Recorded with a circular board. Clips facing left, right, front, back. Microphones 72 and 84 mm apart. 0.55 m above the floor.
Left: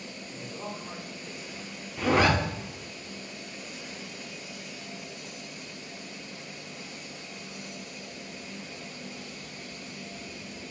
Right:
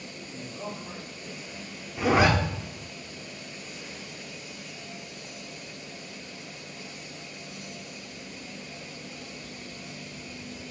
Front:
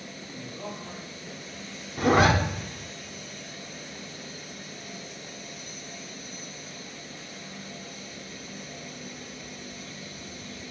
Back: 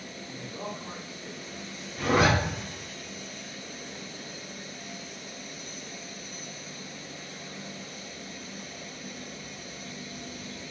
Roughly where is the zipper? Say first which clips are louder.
Right 2 dB, front 3 dB; ahead.